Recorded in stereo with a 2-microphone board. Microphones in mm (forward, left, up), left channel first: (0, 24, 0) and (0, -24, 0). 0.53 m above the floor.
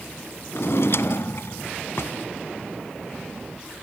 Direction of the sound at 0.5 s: 65° left (ahead or behind).